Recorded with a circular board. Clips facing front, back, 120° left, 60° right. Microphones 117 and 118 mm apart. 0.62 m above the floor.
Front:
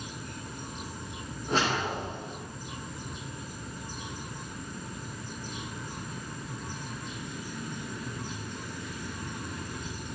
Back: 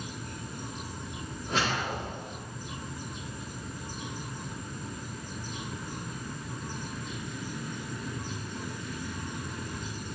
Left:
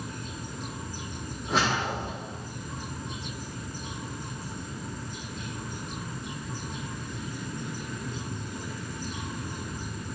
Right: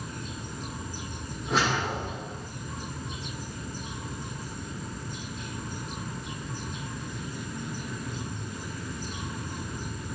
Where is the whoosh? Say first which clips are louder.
Front 2 dB, even; 30° left, 1.4 m.